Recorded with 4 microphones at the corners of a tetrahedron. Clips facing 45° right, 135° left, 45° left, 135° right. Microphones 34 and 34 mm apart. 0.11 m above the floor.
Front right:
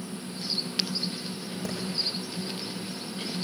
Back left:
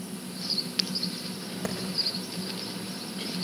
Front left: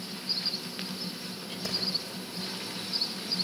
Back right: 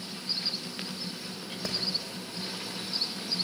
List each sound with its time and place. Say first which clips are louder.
1.6 s a clap: back left 2 dB, even; 170° left, 6.5 m